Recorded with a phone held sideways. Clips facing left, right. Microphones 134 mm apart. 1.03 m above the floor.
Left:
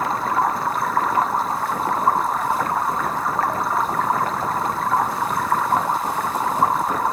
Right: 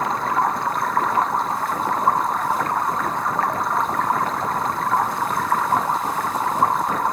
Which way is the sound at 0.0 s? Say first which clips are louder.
Even; centre (ahead or behind).